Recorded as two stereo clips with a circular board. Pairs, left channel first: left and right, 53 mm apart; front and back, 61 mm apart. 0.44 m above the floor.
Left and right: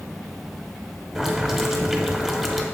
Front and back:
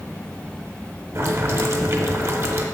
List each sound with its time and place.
1.1 s boiling: straight behind, 1.2 m